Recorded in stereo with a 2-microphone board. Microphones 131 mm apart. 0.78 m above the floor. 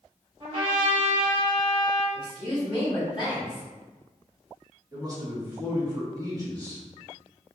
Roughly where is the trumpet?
Right.